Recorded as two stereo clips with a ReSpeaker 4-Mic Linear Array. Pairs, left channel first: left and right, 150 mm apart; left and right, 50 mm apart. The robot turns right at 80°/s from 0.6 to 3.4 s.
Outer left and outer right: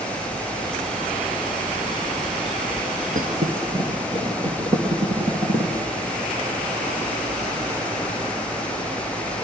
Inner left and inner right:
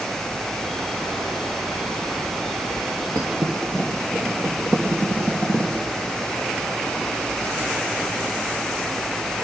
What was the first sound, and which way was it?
A thud, 60° right (ahead or behind).